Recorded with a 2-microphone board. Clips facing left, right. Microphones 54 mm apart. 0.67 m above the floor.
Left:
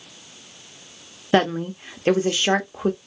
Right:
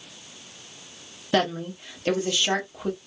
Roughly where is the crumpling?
I don't hear crumpling.